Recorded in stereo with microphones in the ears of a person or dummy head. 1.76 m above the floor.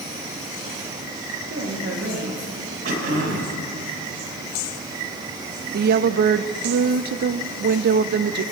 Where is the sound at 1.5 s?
55° right (ahead or behind), 2.5 m.